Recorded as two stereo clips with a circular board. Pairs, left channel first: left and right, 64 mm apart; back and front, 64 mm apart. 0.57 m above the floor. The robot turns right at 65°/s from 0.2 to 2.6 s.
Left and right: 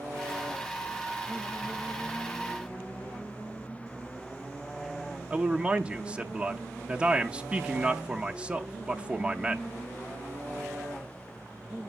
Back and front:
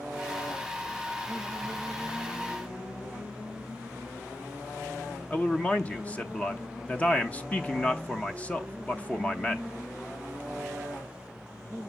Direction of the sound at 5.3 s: 140° right.